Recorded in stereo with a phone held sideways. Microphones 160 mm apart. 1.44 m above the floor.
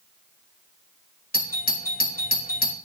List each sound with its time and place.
1.3 s a doorbell: 65° left (ahead or behind), 3 m